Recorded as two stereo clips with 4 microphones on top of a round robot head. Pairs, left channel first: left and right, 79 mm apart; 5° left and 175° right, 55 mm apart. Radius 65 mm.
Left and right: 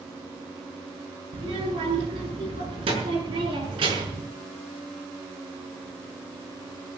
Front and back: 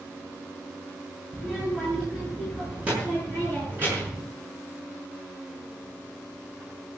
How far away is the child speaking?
About 6.5 m.